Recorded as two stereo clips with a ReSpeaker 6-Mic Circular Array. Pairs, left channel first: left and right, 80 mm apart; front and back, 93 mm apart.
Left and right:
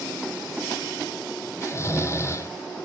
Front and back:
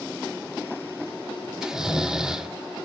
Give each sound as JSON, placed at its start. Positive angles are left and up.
{"t": 1.6, "sound": "snoring", "azimuth_deg": 105, "distance_m": 1.3}